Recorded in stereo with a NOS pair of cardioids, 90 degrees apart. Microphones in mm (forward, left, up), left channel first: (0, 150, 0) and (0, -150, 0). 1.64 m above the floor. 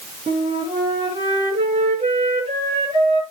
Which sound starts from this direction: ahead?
A flute, at 0.3 s.